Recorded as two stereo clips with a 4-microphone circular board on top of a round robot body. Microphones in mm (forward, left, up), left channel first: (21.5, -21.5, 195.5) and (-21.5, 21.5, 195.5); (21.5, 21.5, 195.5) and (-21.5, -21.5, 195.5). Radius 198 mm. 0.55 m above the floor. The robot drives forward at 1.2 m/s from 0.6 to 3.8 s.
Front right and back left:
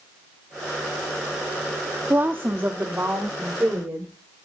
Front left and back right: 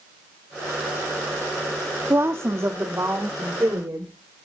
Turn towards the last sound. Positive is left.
turn(degrees=180)